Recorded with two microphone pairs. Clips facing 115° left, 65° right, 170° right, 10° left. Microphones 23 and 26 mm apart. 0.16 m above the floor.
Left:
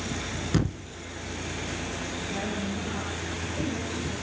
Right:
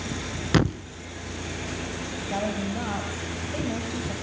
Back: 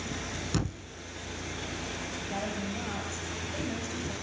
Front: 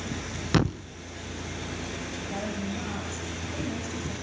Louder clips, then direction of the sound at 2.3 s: Right 5 dB, front 2 dB; 80° right.